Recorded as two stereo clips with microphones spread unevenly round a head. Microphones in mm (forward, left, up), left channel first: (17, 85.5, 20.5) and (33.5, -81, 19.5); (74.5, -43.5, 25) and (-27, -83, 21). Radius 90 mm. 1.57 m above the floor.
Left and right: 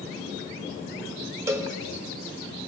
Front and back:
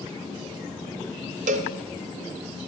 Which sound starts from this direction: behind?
A cowbell, at 1.5 s.